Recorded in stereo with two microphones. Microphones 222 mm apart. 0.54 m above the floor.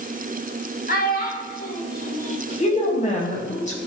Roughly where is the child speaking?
Left.